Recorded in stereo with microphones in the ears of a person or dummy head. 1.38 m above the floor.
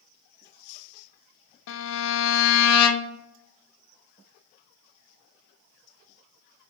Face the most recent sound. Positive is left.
turn(degrees=70)  # may be behind; listen again after turning